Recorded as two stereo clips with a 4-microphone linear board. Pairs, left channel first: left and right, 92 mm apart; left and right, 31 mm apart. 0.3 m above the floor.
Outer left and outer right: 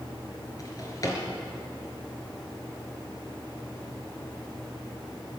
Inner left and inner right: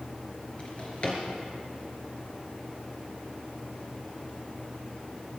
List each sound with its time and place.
0.6 s a drawer: 40° left (ahead or behind), 3 m